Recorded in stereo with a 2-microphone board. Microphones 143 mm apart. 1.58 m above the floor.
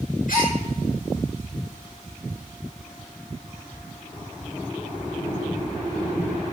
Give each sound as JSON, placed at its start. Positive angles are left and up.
{"t": 0.3, "sound": "a gasp", "side_deg": 70, "distance_m": 5.0}